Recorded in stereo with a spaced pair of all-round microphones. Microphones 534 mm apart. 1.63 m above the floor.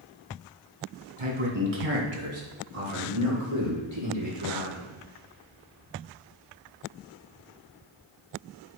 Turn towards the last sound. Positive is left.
turn(degrees=-50)  # may be behind; listen again after turning